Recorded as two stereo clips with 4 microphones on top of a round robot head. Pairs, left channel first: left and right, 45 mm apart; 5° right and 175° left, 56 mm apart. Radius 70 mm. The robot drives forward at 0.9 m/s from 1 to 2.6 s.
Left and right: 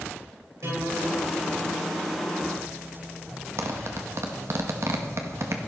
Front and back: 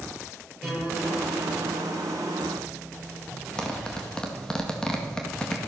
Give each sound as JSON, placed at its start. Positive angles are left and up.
{"t": 0.6, "sound": "a guitar", "azimuth_deg": -95, "distance_m": 9.5}
{"t": 3.6, "sound": "a zipper", "azimuth_deg": -80, "distance_m": 2.0}